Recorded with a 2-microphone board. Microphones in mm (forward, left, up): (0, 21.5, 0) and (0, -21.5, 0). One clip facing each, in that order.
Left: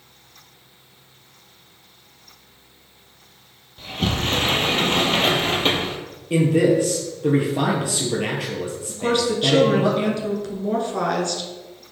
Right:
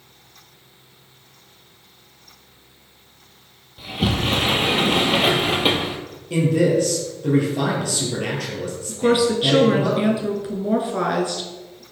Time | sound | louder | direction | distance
3.8 | a sliding door | right 2 dB | 5° right (ahead or behind) | 0.8 m
6.3 | a man speaking | left 1 dB | 20° left (ahead or behind) | 2.5 m
8.9 | a woman speaking | right 4 dB | 10° right (ahead or behind) | 1.1 m